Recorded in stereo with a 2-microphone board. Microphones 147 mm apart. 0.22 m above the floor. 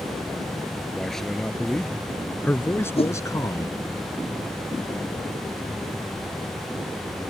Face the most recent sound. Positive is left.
turn(degrees=40)  # may be behind; listen again after turning